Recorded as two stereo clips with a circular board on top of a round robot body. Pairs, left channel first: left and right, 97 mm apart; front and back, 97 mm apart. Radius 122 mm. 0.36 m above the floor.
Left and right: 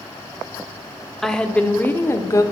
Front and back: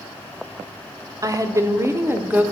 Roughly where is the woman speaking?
Behind.